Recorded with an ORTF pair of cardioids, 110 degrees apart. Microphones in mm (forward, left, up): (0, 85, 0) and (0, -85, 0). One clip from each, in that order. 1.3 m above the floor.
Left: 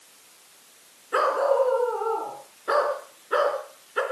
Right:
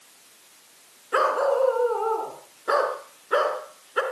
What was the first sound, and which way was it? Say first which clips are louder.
A dog barking: even; 10° right.